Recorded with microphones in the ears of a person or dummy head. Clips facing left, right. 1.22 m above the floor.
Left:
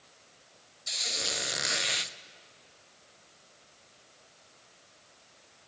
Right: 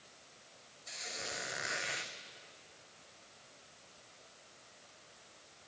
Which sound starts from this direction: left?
A squeak, at 0.9 s.